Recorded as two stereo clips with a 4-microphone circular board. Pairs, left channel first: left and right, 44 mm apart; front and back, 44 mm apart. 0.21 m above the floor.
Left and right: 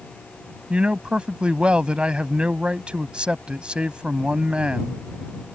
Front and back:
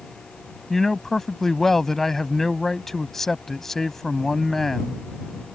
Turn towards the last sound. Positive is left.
turn(degrees=-70)